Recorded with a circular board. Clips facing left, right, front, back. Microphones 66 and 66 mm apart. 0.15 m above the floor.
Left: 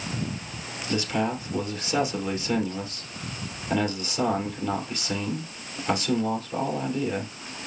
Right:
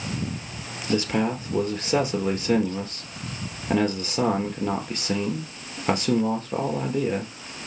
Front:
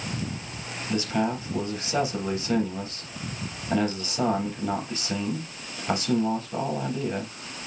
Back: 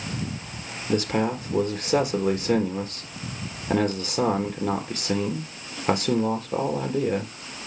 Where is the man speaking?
140° right, 3.5 m.